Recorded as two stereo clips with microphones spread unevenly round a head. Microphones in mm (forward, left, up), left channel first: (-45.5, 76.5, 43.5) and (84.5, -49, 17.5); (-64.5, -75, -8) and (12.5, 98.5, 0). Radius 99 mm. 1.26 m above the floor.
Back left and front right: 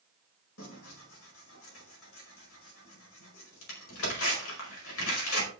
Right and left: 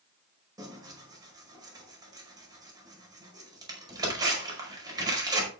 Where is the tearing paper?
135° left, 5 m.